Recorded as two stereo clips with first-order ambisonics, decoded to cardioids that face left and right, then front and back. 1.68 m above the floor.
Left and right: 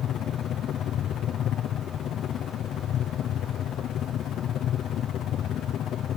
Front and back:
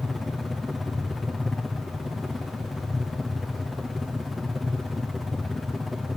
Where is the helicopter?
80° left.